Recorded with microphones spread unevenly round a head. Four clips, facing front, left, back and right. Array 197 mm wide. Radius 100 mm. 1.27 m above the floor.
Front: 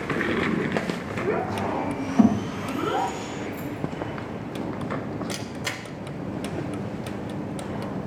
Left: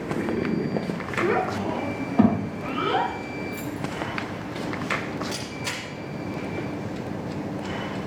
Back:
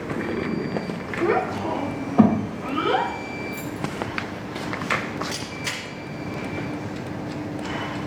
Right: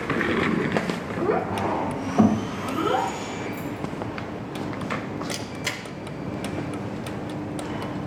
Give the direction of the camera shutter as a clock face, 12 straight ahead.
2 o'clock.